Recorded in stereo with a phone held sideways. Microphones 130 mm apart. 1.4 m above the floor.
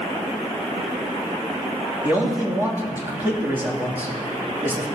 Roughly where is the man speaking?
Centre.